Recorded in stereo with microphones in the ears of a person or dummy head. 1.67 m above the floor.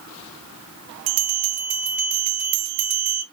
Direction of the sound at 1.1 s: 45° right (ahead or behind).